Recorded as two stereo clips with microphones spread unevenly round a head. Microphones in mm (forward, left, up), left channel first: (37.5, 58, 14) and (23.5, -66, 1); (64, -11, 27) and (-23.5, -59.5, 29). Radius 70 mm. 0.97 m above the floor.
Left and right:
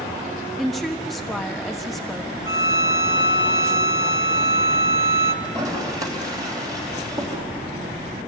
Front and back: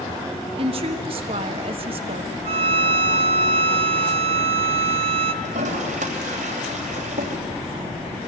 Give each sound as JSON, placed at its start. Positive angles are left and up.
{"t": 0.6, "sound": "a woman speaking", "azimuth_deg": 175, "distance_m": 1.2}
{"t": 2.5, "sound": "a violin", "azimuth_deg": -165, "distance_m": 0.6}
{"t": 5.4, "sound": "a toilet flushing", "azimuth_deg": -165, "distance_m": 3.0}